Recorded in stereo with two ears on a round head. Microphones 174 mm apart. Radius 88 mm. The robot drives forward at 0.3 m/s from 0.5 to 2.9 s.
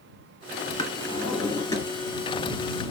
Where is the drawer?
20° left (ahead or behind), 1.8 m.